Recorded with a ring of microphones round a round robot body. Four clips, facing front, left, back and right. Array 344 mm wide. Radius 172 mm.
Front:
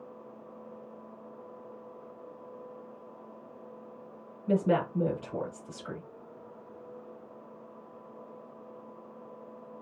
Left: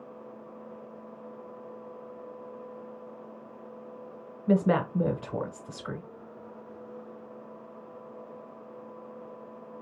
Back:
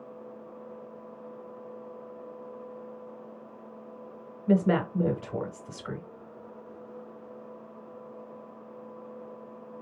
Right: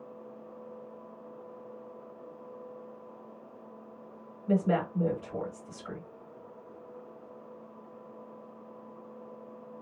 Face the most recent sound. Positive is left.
turn(degrees=110)